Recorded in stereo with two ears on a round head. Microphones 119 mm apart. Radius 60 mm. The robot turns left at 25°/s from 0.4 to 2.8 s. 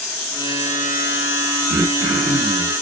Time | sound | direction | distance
1.7 | throat clearing | 40° right (ahead or behind) | 1.1 m